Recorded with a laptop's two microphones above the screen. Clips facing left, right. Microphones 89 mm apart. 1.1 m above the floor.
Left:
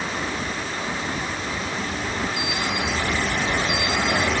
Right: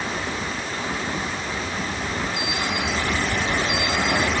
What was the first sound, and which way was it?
Only background noise.